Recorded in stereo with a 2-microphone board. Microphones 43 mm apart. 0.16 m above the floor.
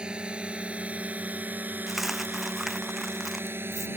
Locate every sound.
0.0 s a drone: 25° right (ahead or behind); by 4.0 s 60° right (ahead or behind)
1.9 s a dropped coin: 5° right (ahead or behind)